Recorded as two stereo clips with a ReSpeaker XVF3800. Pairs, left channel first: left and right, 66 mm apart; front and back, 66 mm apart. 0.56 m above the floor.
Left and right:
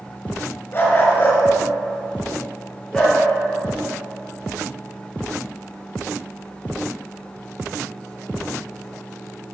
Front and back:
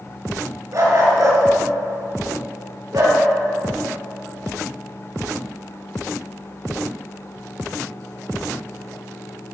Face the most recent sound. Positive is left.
turn(degrees=165)